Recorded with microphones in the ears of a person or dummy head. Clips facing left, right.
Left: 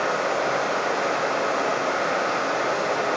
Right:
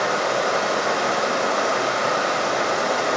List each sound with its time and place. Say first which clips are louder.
0.0 s running water: right 2 dB; 75° right (ahead or behind), 1.2 m